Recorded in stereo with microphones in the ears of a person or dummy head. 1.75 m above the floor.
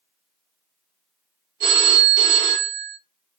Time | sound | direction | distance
1.6 | a phone ringing | 45° right (ahead or behind) | 1.4 m